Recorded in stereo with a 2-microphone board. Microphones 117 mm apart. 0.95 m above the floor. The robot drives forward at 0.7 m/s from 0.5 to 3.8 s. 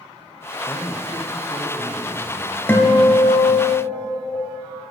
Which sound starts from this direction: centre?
A guitar, at 2.7 s.